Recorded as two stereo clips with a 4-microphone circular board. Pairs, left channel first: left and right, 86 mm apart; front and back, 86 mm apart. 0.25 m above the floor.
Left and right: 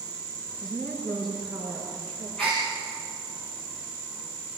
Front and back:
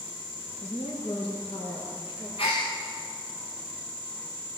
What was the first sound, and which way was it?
A woman speaking, 5° right.